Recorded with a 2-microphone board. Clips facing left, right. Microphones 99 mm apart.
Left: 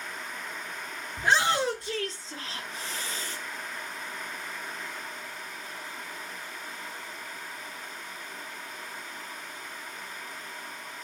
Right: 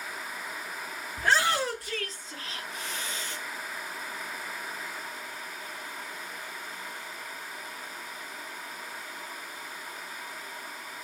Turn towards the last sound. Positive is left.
turn(degrees=45)  # may be behind; listen again after turning